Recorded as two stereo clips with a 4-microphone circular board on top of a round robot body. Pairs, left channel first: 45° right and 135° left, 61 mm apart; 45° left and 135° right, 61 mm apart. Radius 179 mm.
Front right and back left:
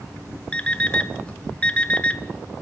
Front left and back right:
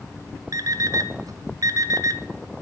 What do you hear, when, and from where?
0.5 s an alarm clock: 115° right, 1.1 m